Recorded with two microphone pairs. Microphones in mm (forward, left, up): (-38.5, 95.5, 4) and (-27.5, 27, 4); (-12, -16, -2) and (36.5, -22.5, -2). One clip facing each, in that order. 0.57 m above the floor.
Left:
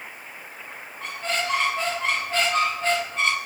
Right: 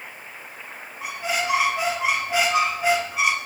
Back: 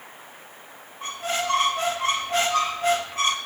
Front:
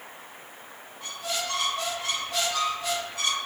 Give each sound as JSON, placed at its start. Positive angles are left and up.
{"t": 1.0, "sound": "a squeak", "azimuth_deg": -160, "distance_m": 0.6}